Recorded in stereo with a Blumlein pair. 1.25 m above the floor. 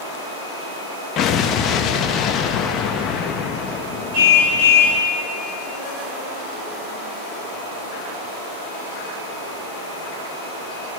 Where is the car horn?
50° right, 6.5 m.